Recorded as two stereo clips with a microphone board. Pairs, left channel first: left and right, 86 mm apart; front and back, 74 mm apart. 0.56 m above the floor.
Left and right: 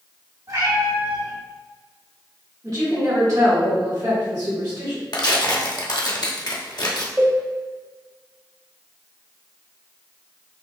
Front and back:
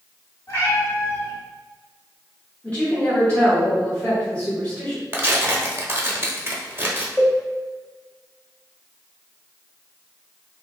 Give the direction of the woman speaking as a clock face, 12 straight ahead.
2 o'clock.